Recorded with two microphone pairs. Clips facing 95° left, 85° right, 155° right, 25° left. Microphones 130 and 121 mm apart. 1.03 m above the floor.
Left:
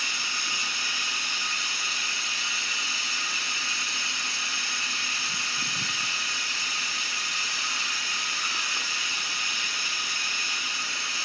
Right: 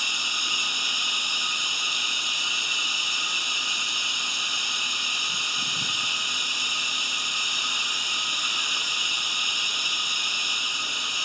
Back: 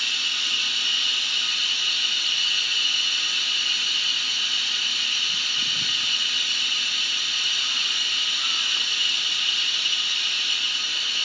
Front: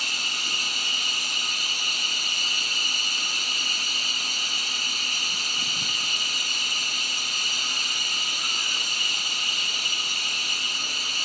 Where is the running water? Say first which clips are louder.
Right 1 dB, front 1 dB; 15° right, 0.9 m.